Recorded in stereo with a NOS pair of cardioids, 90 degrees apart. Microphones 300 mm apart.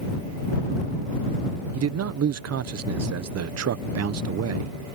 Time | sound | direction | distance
1.7 | a man speaking | 55° right | ?